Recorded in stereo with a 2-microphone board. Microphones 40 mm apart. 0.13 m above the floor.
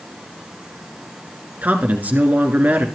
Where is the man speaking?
45° right (ahead or behind), 2 m.